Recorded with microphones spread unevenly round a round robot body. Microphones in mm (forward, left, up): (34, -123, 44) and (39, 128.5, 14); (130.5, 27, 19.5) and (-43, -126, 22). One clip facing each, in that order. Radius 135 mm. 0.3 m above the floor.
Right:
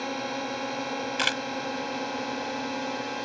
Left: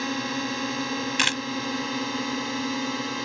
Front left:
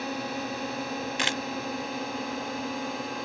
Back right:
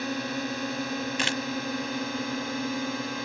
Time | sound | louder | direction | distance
0.0 | a drone | left 4 dB, back right 2 dB | 150° left | ?
1.2 | a camera shutter | left 2 dB, back right 2 dB | 135° left | ?